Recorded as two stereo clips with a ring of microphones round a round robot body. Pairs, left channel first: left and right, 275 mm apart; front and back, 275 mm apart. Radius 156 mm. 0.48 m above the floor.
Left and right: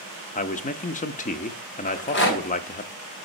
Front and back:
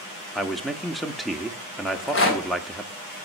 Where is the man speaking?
90° left, 0.7 m.